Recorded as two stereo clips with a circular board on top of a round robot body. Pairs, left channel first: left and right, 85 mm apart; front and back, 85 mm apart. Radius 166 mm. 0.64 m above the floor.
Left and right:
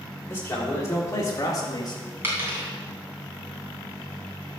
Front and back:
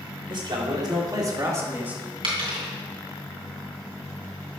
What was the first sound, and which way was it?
A man speaking, 160° left.